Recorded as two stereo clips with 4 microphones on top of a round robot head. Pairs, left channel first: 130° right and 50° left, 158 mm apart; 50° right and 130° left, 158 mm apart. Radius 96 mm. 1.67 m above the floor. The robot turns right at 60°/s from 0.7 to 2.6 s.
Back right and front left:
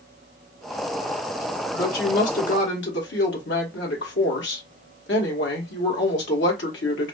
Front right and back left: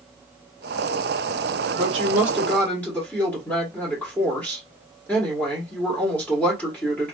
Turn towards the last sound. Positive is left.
turn(degrees=-125)